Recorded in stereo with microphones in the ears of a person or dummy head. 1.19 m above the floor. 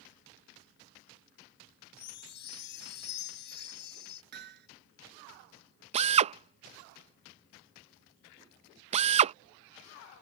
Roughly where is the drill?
Right.